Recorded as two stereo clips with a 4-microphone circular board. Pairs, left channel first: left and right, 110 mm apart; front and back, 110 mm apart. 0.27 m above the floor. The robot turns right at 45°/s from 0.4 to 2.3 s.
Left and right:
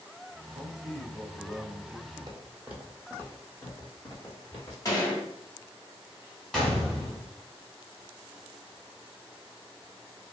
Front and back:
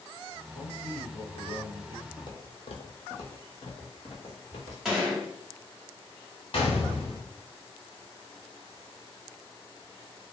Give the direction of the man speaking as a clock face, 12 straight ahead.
1 o'clock.